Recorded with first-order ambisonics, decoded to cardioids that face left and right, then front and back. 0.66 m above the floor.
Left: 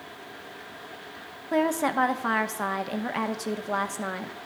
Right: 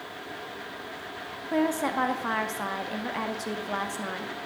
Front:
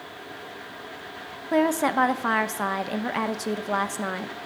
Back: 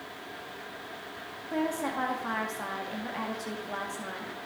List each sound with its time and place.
1.5 s a woman speaking: 20° left, 0.7 m